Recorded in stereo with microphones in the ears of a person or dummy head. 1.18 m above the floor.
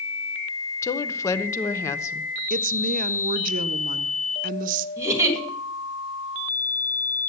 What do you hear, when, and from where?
0.8 s a woman speaking: 15° left (ahead or behind), 0.6 m
2.5 s a woman speaking: 50° right (ahead or behind), 0.5 m
5.0 s a giggle: 20° right (ahead or behind), 1.4 m